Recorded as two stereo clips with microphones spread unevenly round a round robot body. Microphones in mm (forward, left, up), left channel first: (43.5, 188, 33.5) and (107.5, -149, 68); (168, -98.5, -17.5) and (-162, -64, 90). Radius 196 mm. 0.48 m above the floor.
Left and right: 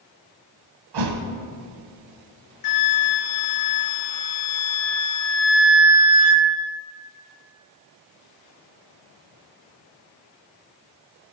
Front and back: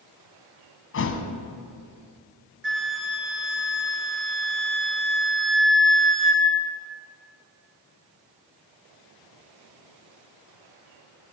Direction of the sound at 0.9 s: 65° right.